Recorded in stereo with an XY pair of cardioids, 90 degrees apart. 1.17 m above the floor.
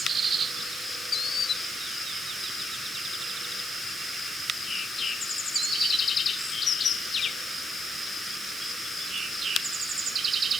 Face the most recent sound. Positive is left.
No sound to turn to.